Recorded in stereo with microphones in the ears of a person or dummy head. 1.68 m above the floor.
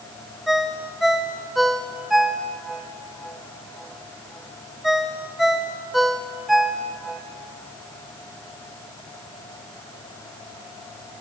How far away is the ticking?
No ticking in this recording.